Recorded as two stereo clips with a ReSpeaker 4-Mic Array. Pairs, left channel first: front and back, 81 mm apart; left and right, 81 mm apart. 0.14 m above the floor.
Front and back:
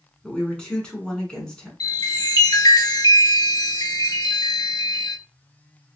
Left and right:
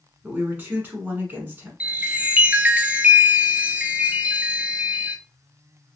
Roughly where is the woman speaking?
Ahead right.